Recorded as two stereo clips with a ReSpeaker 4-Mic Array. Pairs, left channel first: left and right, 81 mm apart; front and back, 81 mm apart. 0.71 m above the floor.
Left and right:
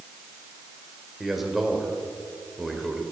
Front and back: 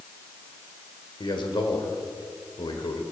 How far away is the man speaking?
About 2.5 m.